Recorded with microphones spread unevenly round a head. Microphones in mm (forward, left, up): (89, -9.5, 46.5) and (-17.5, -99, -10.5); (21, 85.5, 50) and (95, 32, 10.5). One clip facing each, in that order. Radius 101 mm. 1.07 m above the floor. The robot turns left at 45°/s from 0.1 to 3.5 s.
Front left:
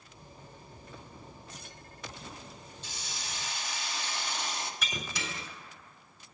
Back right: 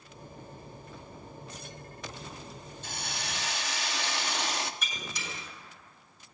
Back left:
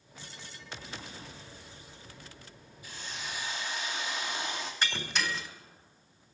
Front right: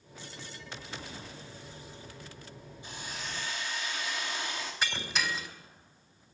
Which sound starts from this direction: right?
A hiss, at 2.8 s.